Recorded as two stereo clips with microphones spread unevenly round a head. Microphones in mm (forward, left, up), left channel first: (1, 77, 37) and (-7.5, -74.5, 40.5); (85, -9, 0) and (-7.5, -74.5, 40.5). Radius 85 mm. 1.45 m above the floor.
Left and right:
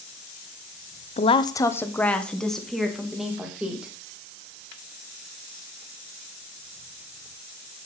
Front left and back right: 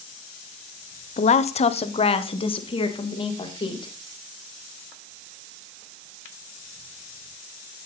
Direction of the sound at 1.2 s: 40° left.